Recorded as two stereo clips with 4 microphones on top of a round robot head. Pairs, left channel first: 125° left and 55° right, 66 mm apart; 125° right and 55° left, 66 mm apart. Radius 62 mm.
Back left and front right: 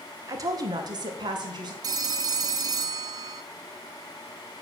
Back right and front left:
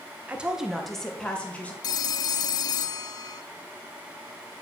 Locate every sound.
0.3 s a woman speaking: 15° right, 1.8 m; by 1.7 s 55° right, 3 m
1.8 s a phone ringing: 90° right, 0.6 m